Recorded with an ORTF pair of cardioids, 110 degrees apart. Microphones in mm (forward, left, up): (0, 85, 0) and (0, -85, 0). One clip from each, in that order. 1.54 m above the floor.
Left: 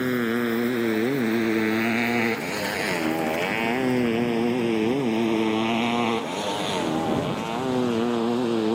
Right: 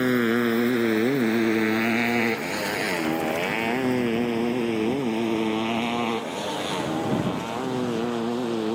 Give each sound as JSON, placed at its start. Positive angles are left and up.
{"t": 0.0, "sound": "a motorcycle", "azimuth_deg": -15}